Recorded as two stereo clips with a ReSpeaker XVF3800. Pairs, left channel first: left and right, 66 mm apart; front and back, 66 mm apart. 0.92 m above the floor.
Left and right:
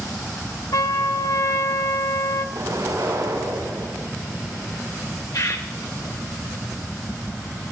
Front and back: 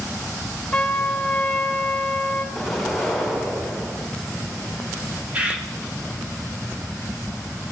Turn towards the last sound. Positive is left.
turn(degrees=110)